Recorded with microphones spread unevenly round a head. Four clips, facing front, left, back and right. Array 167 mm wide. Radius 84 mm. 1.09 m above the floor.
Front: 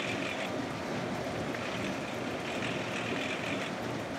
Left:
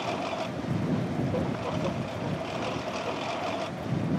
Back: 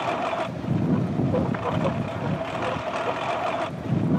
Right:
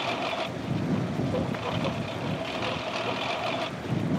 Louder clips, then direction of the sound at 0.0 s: Right 1 dB, back 10 dB; 175° right.